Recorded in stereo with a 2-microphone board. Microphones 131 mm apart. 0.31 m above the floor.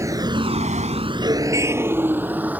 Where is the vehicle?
25° right (ahead or behind); by 2.6 s 10° right (ahead or behind).